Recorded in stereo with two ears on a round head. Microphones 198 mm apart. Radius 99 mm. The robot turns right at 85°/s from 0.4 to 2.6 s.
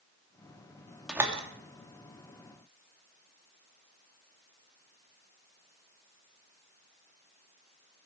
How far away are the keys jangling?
No keys jangling in this recording.